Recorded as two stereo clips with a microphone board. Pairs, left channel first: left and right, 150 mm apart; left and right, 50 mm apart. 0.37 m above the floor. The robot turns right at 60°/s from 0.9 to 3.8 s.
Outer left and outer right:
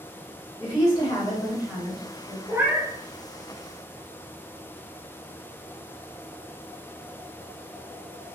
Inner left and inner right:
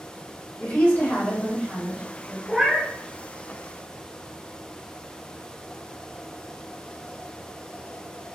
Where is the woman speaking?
110° left, 1.6 m; by 2.4 s 160° right, 1.6 m.